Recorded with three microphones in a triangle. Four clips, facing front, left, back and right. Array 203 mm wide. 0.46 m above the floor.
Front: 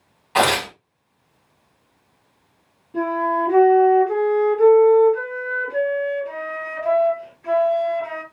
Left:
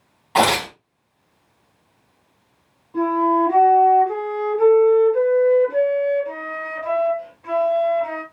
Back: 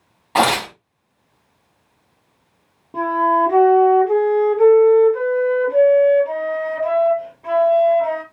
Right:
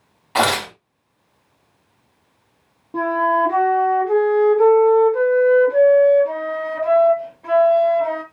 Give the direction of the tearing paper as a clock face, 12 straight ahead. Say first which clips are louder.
Left 1 dB, back 2 dB; 7 o'clock.